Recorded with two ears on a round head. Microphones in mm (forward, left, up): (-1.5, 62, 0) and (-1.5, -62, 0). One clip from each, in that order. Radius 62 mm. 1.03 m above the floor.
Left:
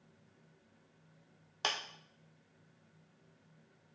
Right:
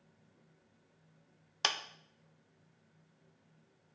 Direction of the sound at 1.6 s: 40° right (ahead or behind).